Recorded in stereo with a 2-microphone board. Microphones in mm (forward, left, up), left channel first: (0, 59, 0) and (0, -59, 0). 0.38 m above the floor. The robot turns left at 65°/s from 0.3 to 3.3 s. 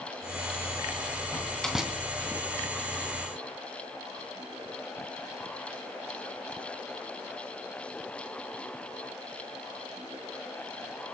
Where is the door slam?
25° left (ahead or behind), 2.5 m; by 1.9 s 15° right (ahead or behind), 2.5 m.